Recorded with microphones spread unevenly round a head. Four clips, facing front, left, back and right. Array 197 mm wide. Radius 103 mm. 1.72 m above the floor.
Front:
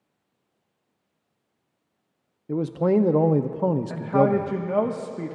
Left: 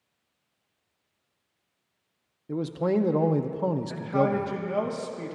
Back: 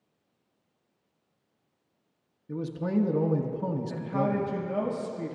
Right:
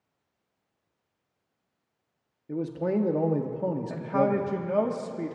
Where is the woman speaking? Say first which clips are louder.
Right 2 dB, front 8 dB; 25° right, 1.5 m.